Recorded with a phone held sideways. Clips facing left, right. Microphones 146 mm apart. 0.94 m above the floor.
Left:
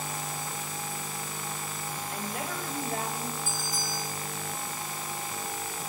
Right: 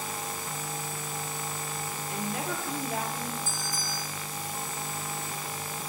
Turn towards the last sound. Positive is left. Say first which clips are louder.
# left 1 dB
turn(degrees=-70)  # may be behind; listen again after turning